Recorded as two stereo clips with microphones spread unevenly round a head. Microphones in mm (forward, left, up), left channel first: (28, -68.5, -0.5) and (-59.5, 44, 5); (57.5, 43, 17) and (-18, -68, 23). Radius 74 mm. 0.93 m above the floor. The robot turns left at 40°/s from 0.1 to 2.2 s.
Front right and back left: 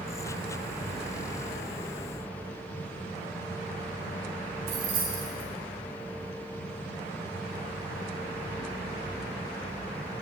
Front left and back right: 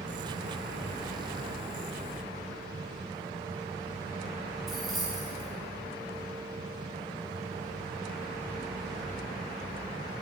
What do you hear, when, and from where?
4.7 s keys jangling: 145° left, 2.5 m